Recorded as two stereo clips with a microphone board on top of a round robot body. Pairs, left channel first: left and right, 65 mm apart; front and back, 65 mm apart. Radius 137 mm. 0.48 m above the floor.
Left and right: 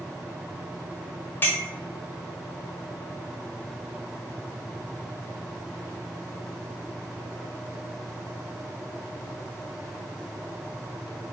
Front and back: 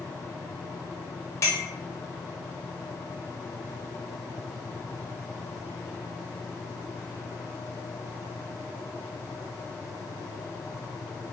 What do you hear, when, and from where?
1.4 s a clink: 35° left, 1.1 m